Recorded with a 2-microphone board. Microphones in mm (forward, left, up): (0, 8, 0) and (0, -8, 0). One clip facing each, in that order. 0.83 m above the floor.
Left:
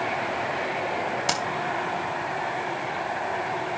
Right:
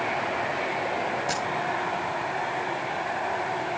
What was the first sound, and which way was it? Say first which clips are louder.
Keys jangling: left 2 dB; 50° left (ahead or behind).